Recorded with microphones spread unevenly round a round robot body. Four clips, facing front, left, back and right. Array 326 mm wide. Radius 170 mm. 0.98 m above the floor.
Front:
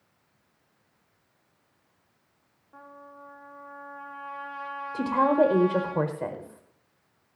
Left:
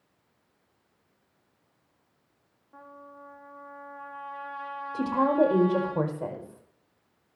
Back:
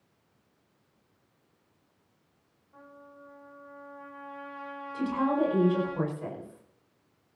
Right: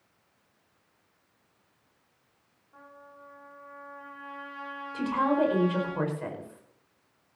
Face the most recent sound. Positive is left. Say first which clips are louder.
# left 2 dB, front 5 dB
turn(degrees=20)